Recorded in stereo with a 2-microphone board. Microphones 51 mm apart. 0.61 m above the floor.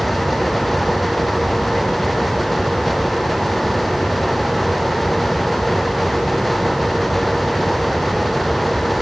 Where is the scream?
No scream in this recording.